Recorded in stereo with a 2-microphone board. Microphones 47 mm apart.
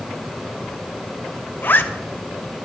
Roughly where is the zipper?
Left.